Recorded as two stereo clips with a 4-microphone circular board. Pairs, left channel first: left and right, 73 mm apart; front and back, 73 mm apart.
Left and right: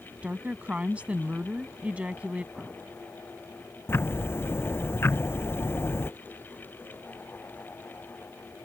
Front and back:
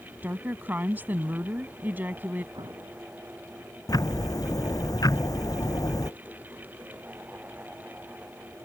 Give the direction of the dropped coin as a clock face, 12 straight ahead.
I don't hear a dropped coin.